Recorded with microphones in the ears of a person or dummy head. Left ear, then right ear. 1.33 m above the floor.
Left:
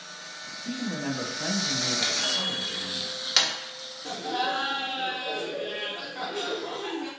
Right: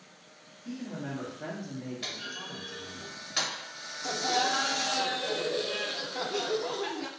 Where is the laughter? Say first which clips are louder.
Right 1 dB; 80° right, 0.6 m.